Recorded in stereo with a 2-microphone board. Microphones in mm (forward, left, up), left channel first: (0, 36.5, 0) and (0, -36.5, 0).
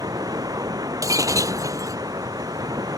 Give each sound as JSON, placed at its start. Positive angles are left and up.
{"t": 0.0, "sound": "running water", "side_deg": -60}
{"t": 1.0, "sound": "breaking glass", "side_deg": -50}